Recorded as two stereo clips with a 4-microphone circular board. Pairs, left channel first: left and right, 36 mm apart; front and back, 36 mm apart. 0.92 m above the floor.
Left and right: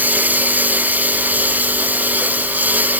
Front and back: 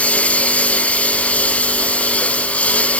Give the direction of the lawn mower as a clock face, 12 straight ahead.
2 o'clock.